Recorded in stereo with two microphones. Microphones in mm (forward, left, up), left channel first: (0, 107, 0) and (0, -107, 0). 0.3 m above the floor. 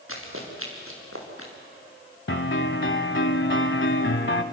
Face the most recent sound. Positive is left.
turn(degrees=65)  # may be behind; listen again after turning